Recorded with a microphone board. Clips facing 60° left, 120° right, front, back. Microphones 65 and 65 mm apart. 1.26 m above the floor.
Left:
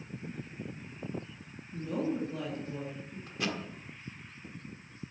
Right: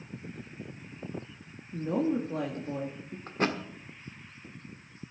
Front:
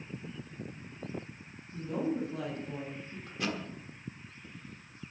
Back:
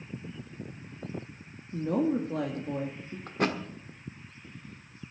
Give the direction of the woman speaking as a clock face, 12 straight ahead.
6 o'clock.